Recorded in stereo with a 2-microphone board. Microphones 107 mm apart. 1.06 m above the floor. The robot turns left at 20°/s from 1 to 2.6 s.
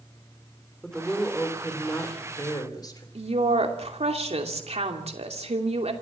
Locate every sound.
0.8 s a woman speaking: 175° left, 3 m; by 3.0 s 145° left, 3 m
3.1 s a woman speaking: 75° right (ahead or behind), 2.5 m